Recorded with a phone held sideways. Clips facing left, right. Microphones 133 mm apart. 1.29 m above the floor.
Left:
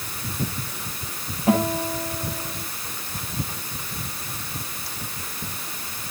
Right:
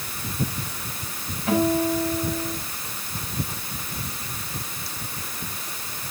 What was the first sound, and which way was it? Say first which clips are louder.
A guitar: right 1 dB; 35° left (ahead or behind).